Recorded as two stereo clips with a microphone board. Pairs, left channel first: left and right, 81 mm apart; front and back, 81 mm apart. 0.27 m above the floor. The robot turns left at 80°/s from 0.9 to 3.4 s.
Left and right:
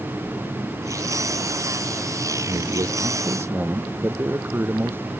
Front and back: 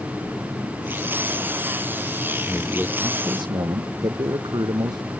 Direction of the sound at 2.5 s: 75° right.